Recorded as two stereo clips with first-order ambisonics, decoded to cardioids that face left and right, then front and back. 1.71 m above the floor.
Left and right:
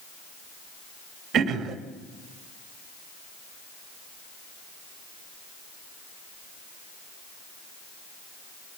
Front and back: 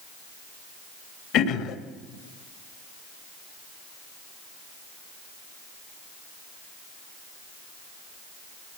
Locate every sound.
1.3 s throat clearing: 30° right, 2.0 m